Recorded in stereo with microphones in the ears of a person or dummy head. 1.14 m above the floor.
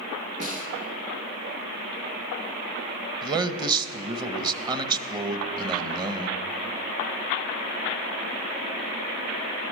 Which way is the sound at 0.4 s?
35° right (ahead or behind).